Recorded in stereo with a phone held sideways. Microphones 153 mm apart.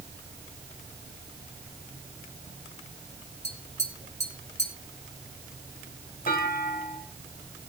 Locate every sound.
3.4 s tapping: 45° left (ahead or behind), 5 m
6.3 s a clunk: 75° left (ahead or behind), 4 m